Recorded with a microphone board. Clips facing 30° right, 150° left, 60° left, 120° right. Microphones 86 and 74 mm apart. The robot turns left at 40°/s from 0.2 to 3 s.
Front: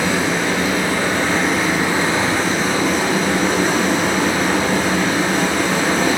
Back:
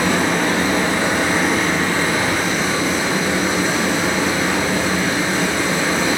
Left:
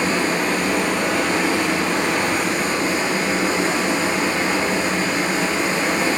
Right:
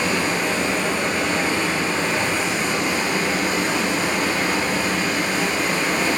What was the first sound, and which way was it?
Running water, 110° left.